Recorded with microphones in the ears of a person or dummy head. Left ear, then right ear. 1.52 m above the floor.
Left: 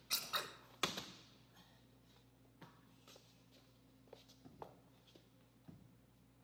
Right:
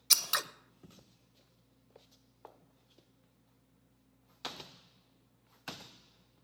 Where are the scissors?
80° right, 0.8 m.